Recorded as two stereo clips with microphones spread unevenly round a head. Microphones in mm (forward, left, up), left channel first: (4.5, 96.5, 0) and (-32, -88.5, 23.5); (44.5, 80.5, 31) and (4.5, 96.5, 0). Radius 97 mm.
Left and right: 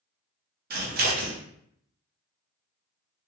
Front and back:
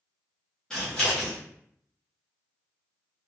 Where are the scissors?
130° right, 0.7 m.